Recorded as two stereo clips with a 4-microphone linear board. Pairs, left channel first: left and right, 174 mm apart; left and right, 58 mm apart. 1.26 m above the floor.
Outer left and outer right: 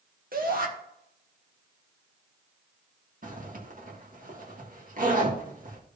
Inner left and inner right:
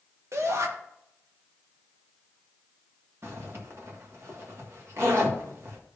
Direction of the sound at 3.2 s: 55° right (ahead or behind).